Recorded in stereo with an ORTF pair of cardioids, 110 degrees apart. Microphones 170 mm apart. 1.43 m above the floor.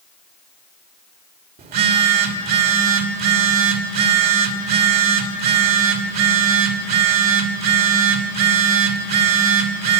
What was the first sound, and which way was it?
A phone buzzing, 60° right.